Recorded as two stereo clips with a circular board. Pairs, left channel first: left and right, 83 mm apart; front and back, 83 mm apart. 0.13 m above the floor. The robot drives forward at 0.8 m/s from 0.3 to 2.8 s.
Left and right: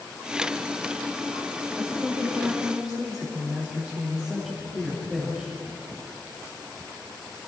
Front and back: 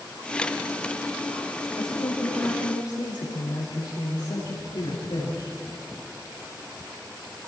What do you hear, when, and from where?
1.8 s a woman speaking: 5° left, 8 m